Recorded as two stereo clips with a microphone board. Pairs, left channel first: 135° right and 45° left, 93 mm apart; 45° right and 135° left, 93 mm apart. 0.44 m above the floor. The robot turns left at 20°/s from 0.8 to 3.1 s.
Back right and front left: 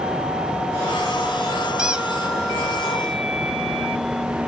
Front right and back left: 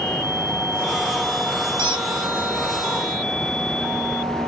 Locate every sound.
1.8 s a squeak: 130° left, 0.6 m; by 2.1 s 120° left, 0.6 m